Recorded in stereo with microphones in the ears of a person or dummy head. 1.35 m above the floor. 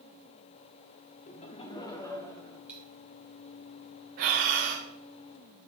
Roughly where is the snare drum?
No snare drum in this recording.